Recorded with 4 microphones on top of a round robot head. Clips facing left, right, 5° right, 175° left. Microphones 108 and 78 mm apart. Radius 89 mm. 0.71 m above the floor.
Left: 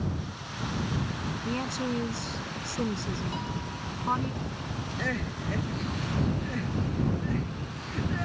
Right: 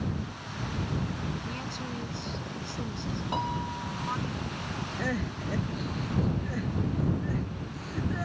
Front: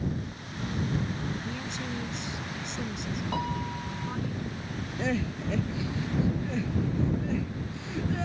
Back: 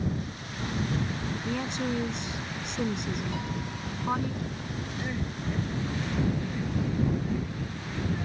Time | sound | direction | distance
1.4 | a woman speaking | 135° left | ?
3.3 | a piano | 50° right | ?
5.0 | crying | 5° right | ?